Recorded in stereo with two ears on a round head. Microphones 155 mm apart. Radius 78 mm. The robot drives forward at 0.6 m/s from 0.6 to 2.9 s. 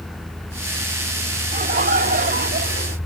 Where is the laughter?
45° right (ahead or behind), 2.5 m; by 3.0 s 60° right (ahead or behind), 1.9 m.